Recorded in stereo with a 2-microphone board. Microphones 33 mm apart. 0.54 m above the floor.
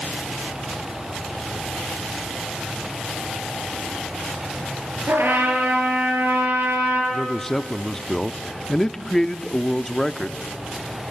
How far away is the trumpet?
About 6.5 m.